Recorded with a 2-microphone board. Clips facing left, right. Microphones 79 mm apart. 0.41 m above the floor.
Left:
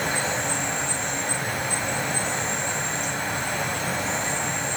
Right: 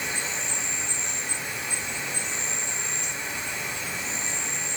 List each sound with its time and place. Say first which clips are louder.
0.0 s an insect: left 7 dB; 60° left (ahead or behind), 1.0 m